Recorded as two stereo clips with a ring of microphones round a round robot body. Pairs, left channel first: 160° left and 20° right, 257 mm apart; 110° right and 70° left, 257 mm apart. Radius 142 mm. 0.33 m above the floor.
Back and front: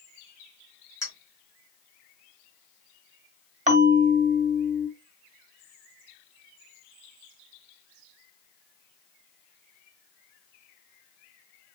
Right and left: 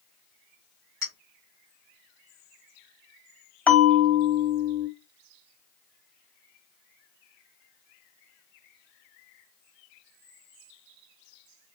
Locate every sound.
1.0 s a clink: 80° left, 3.5 m
3.7 s a bell: 35° right, 1.4 m